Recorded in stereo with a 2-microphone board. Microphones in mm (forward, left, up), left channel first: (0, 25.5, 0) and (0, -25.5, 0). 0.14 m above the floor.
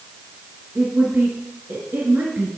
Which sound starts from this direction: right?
A woman speaking, at 0.8 s.